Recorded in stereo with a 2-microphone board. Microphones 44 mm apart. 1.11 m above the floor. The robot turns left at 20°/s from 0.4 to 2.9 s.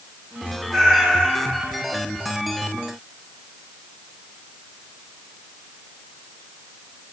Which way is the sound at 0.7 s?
5° left (ahead or behind).